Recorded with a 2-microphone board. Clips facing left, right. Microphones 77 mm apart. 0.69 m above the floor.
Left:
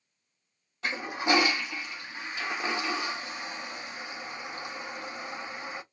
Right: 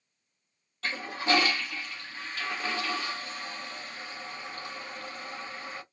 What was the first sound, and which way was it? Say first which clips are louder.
A toilet flushing: left 1 dB; 15° left (ahead or behind).